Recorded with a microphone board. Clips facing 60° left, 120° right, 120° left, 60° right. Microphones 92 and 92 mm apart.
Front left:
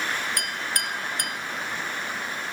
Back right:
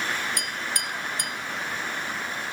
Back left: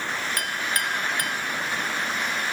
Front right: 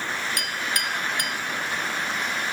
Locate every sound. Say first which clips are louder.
0.4 s a clink: front left 1 dB, back left 1 dB; 75° left, 1.1 m